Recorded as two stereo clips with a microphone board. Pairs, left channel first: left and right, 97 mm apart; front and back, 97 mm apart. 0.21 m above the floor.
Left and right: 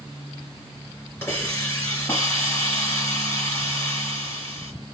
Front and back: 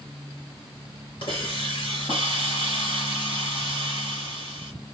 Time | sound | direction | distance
1.2 | a hiss | 20° left | 3 m